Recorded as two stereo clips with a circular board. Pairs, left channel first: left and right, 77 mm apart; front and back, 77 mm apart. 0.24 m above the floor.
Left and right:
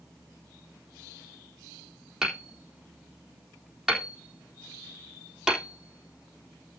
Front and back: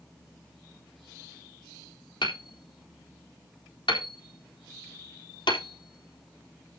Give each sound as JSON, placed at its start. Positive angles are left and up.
{"t": 2.2, "sound": "hammering", "azimuth_deg": -5, "distance_m": 3.5}